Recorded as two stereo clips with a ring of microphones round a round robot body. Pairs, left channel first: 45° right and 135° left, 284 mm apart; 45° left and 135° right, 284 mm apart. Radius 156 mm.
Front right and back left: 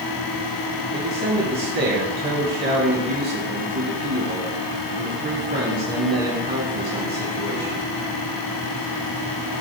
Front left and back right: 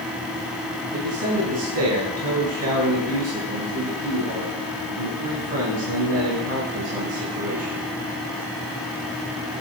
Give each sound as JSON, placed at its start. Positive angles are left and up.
{"t": 0.9, "sound": "a man speaking", "azimuth_deg": -170, "distance_m": 3.5}